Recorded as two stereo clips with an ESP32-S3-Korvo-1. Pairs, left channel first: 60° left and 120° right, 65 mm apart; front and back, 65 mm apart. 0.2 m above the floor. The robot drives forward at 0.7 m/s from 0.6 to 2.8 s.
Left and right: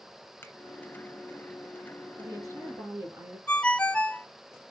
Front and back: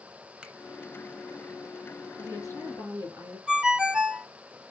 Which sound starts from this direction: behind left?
A ringtone, at 3.5 s.